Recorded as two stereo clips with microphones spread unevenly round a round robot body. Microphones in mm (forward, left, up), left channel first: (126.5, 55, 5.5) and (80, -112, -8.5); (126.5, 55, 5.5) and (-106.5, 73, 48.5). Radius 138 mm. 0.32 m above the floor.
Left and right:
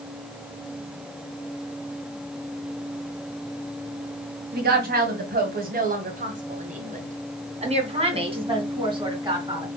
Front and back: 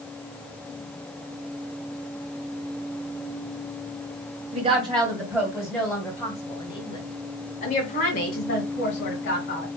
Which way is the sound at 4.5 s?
115° right.